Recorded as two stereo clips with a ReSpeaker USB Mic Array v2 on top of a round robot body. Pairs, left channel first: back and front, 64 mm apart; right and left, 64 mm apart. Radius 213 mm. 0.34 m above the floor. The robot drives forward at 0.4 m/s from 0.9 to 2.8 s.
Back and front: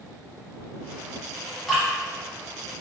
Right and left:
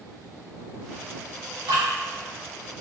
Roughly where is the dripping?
Left.